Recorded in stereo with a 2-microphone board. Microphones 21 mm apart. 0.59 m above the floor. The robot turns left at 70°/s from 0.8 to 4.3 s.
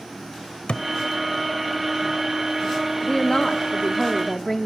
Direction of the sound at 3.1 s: 115° left.